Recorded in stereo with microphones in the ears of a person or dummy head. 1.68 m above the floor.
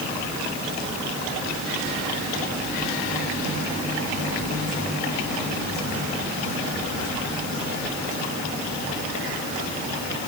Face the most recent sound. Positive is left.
No sound to turn to.